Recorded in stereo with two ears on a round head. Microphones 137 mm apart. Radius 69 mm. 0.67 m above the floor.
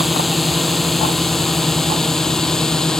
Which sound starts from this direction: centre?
A drone, at 0.0 s.